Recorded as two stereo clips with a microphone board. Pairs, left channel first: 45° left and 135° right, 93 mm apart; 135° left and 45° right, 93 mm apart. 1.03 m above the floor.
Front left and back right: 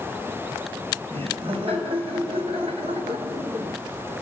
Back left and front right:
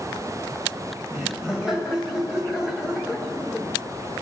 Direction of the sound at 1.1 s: 130° right.